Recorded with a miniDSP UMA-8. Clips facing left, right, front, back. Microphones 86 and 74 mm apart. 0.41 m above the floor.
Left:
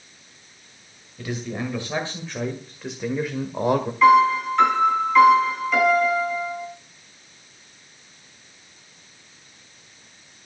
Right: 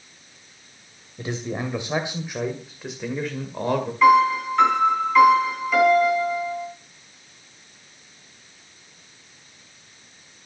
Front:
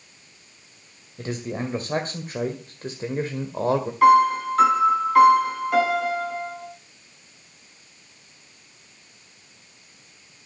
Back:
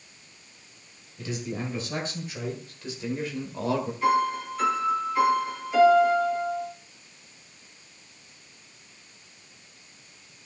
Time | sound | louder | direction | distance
1.2 | a man speaking | right 1 dB, front 3 dB | 35° right | 2 m
4.0 | a piano | left 1 dB, front 10 dB | straight ahead | 4 m